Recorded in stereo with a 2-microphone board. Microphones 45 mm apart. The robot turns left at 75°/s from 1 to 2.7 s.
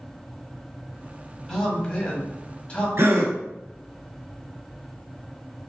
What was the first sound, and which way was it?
A man speaking, 10° left (ahead or behind).